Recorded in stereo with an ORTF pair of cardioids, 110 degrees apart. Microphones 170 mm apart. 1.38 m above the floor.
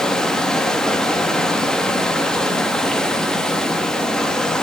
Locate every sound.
0.0 s running water: 5° left, 1.5 m